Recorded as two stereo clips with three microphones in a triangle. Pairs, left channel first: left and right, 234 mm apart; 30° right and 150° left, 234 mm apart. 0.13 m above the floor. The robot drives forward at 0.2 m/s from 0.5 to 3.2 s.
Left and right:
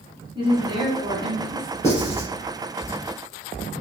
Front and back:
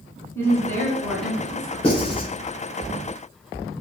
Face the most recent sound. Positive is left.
turn(degrees=25)